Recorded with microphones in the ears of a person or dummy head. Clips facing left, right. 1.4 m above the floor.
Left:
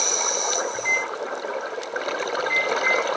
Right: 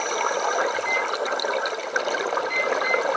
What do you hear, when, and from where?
0.7 s a microwave: 40° left (ahead or behind), 5.5 m